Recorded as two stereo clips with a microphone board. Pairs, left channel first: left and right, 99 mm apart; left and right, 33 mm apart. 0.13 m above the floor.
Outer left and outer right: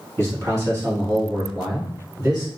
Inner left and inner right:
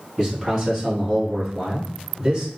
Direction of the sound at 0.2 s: 30° right (ahead or behind).